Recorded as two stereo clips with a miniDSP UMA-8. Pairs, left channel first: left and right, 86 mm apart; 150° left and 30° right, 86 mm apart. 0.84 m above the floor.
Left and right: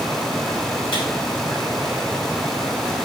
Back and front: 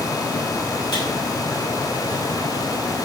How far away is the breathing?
I don't hear breathing.